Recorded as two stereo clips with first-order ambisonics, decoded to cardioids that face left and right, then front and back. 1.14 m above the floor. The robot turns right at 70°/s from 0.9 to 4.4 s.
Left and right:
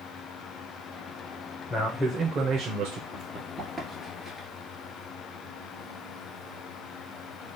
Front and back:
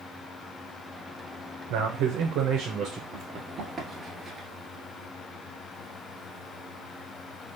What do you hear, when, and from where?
1.7 s a man speaking: 160° left, 0.9 m; by 3.0 s 105° right, 0.9 m
3.1 s running footsteps: 155° left, 1.3 m; by 4.5 s 150° left, 1.1 m